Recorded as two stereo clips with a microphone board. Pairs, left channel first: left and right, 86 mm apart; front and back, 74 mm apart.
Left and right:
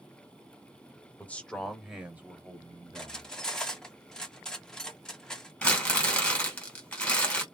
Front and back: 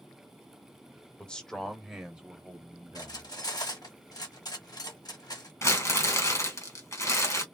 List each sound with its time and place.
1.2 s a man speaking: 60° left, 0.9 m; by 3.3 s 120° right, 1.4 m
3.0 s cutlery clinking: 10° left, 1.0 m
5.6 s crumpling: 20° left, 1.8 m